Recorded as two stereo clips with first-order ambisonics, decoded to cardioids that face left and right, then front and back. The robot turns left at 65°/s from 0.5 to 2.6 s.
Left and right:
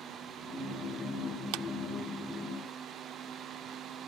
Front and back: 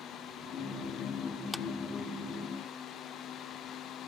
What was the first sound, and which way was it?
A clap, 85° right.